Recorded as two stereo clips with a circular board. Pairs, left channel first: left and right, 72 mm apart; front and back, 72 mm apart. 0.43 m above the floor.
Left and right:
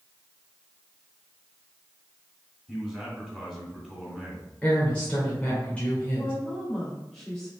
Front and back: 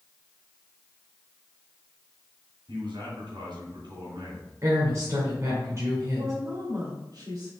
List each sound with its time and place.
2.7 s a man speaking: 175° left, 3 m
4.6 s a woman speaking: 160° left, 1.8 m
6.2 s a woman speaking: straight behind, 1.9 m